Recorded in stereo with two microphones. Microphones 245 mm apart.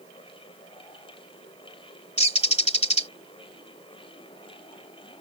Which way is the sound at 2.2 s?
25° left (ahead or behind).